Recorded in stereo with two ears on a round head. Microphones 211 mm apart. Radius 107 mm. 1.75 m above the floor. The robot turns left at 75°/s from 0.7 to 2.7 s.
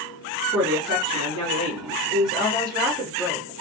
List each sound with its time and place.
0.5 s a woman speaking: 10° right, 2.5 m; by 3.5 s 160° right, 2.5 m